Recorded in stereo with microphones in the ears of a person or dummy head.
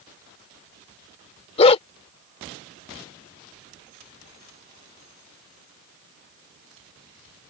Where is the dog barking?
35° left (ahead or behind).